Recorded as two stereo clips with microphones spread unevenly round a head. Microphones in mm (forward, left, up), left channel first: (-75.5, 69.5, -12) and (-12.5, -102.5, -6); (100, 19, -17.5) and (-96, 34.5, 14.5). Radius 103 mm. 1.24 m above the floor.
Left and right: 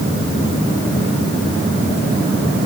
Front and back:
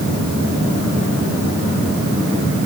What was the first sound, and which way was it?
Only background noise.